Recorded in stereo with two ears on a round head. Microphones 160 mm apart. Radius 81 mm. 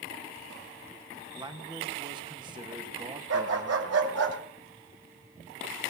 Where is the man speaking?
25° right (ahead or behind), 1.6 m.